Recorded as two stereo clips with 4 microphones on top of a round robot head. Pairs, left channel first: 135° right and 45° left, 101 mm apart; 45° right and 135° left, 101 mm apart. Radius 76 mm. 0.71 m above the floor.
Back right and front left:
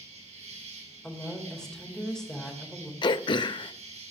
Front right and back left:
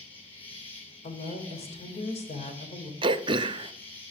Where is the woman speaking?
55° right, 3.5 m.